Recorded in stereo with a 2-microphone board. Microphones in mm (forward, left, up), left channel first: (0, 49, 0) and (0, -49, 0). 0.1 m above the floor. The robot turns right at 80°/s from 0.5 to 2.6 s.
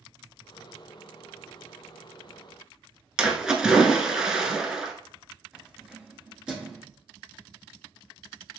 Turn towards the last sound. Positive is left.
turn(degrees=-10)  # may be behind; listen again after turning